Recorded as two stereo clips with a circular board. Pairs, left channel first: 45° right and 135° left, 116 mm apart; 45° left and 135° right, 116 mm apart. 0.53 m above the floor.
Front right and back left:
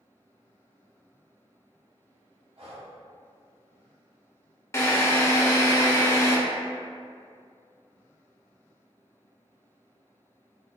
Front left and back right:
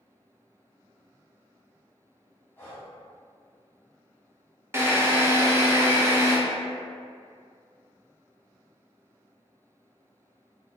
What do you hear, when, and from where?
2.6 s breathing: 115° left, 1.0 m
4.7 s a drill: 90° right, 0.6 m